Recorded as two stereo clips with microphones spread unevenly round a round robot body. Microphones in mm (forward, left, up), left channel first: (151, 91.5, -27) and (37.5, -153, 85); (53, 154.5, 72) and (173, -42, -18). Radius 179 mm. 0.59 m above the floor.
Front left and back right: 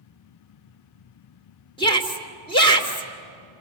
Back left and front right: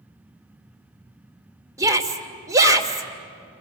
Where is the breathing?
No breathing in this recording.